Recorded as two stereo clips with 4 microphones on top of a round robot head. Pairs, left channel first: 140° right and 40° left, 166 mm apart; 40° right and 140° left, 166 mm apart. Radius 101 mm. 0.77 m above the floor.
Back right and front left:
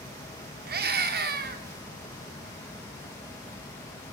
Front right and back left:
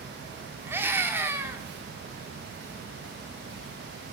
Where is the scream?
60° left, 2 m.